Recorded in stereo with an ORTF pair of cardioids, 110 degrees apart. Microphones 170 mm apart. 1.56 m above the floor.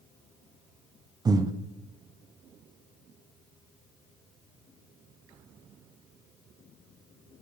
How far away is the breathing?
About 0.6 m.